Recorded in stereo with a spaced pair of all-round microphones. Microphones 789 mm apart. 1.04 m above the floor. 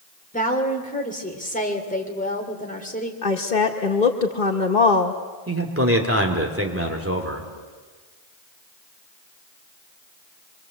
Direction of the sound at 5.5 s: 15° right (ahead or behind).